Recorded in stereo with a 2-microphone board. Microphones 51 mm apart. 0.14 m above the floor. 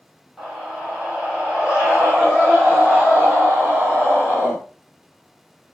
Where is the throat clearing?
I don't hear throat clearing.